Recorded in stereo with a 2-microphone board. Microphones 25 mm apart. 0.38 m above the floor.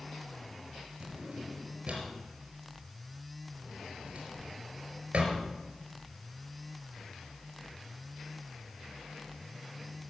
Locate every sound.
1.0 s a drawer: 55° right (ahead or behind), 4.5 m